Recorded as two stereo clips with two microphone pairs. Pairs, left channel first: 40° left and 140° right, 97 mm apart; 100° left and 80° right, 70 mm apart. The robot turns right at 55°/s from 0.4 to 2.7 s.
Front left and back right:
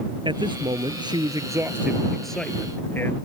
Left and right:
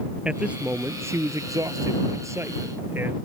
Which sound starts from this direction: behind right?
A man speaking, at 0.2 s.